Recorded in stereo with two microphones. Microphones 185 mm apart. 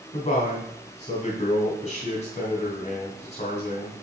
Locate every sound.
0.1 s a man speaking: 40° left (ahead or behind), 2.5 m